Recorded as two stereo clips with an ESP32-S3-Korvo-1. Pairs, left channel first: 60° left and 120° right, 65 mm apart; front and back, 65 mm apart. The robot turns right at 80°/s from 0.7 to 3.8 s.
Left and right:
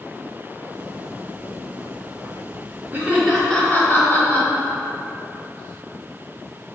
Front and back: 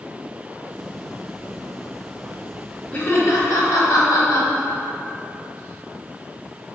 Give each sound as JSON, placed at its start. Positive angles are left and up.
{"t": 2.9, "sound": "laughter", "azimuth_deg": -60, "distance_m": 0.8}